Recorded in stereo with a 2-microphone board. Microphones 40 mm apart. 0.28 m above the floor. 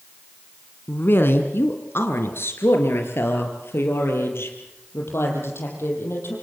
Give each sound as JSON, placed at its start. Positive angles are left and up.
{"t": 0.9, "sound": "a woman speaking", "side_deg": 60, "distance_m": 2.5}